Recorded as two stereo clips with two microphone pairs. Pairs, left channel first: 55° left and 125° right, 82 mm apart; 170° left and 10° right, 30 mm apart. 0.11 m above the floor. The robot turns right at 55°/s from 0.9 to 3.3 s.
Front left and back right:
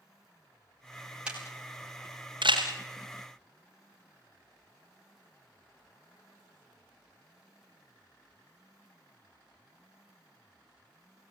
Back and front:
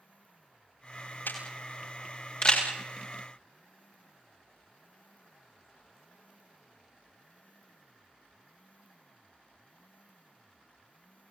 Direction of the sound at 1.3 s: 155° left.